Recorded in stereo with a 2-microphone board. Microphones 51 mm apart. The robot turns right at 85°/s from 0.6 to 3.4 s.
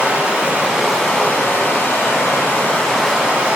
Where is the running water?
30° right, 0.7 m; by 3.5 s 155° right, 0.7 m.